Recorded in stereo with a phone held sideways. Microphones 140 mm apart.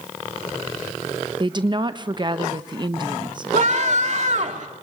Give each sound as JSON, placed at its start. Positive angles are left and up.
{"t": 1.4, "sound": "a woman speaking", "side_deg": -35, "distance_m": 1.0}
{"t": 3.5, "sound": "a scream", "side_deg": -55, "distance_m": 2.0}